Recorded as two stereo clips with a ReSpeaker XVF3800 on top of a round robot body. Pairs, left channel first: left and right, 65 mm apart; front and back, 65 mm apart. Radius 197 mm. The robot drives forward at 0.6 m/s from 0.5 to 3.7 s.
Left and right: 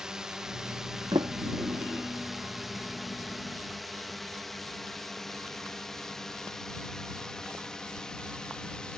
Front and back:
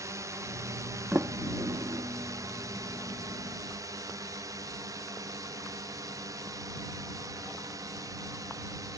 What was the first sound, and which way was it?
A drone, 170° right.